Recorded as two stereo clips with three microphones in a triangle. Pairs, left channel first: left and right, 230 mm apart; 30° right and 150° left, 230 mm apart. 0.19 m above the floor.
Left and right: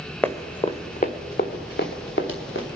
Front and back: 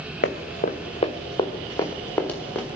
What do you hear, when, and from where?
0.2 s running footsteps: 10° left, 0.9 m; by 2.7 s 55° left, 1.9 m